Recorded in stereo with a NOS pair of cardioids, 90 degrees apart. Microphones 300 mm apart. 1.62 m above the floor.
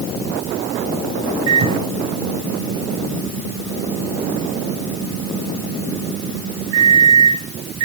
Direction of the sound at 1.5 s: 65° right.